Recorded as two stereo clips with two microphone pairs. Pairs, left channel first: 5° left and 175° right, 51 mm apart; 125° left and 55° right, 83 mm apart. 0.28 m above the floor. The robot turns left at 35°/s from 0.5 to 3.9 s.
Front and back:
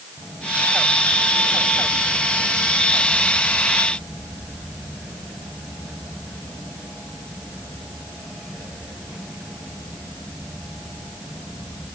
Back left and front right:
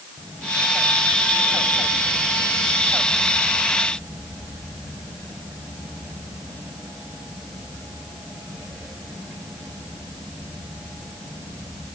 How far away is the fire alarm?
I don't hear a fire alarm.